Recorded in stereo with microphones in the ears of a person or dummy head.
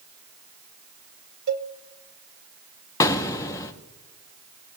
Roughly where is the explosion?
Left.